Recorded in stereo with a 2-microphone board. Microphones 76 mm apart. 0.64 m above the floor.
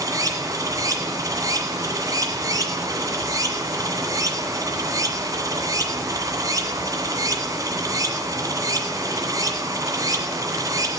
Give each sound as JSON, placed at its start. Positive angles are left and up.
{"t": 0.0, "sound": "running water", "side_deg": -50, "distance_m": 1.8}